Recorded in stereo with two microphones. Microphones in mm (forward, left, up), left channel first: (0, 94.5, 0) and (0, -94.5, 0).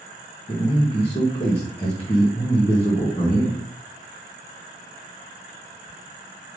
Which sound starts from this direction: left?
A man speaking, at 0.5 s.